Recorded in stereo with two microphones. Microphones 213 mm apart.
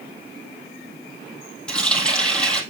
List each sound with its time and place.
1.7 s a running tap: 5° left (ahead or behind), 2.5 m